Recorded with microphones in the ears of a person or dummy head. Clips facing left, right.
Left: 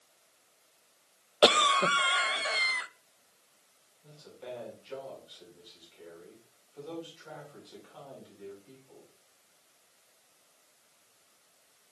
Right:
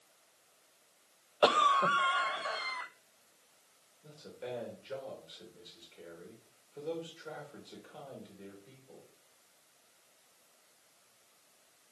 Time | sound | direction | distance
1.4 | a cough | 40° left (ahead or behind) | 0.5 m
4.0 | a man speaking | 30° right (ahead or behind) | 2.5 m